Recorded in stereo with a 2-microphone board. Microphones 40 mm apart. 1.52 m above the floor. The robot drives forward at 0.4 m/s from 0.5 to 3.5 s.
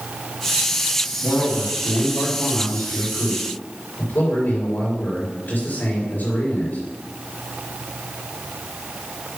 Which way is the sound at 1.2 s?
65° left (ahead or behind).